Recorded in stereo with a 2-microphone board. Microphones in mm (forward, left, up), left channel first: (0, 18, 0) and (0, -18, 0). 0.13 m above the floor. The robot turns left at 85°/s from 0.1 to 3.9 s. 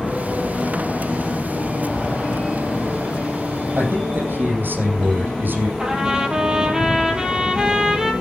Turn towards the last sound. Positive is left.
turn(degrees=-15)  # may be behind; listen again after turning